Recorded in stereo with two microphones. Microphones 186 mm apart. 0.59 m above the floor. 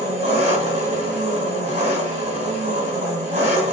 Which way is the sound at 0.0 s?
45° right (ahead or behind).